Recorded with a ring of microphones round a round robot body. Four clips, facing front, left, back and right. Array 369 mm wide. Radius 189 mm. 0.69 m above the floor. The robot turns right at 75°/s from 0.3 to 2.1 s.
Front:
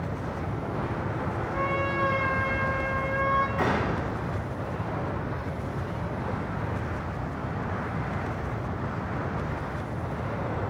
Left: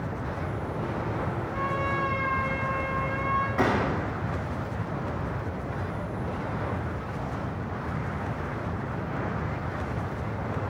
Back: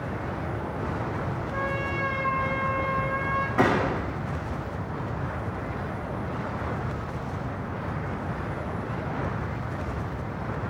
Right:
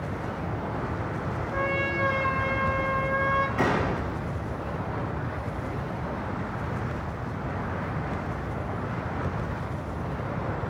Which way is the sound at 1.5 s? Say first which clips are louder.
Right 1 dB, front 3 dB; 115° right.